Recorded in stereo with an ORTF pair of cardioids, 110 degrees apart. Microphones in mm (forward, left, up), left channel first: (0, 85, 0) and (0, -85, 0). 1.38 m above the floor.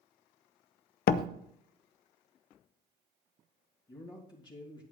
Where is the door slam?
60° left, 0.7 m.